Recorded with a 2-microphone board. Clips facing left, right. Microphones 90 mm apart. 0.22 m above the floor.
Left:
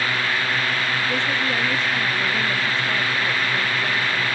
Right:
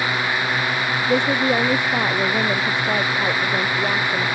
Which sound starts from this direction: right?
A woman speaking, at 1.1 s.